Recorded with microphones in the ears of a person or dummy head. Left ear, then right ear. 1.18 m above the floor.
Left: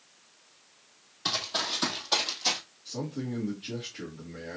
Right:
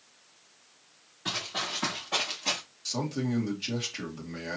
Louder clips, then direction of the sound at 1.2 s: Left 3 dB; 45° left (ahead or behind).